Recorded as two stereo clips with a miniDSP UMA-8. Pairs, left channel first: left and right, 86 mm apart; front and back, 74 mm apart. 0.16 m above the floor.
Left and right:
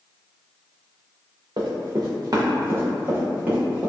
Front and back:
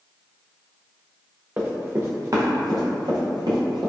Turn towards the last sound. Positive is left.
turn(degrees=-165)